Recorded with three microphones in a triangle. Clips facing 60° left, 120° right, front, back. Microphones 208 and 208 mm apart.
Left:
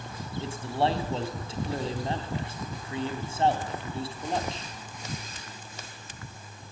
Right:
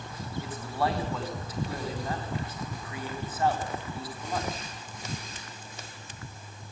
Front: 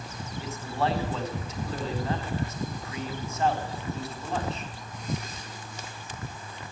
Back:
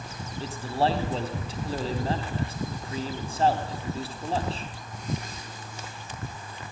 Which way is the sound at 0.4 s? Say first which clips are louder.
Left 3 dB, back 3 dB; 120° left.